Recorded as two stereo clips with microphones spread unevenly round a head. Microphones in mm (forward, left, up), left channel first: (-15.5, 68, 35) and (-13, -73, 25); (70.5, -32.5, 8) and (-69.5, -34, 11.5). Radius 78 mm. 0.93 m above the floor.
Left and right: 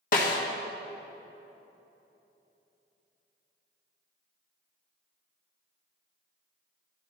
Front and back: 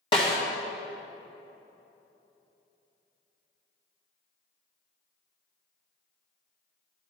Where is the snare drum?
60° left, 1.5 m.